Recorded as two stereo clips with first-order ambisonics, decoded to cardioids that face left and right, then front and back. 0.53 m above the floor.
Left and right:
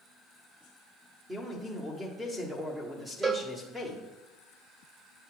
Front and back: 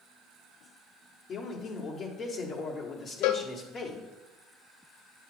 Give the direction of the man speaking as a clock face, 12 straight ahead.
1 o'clock.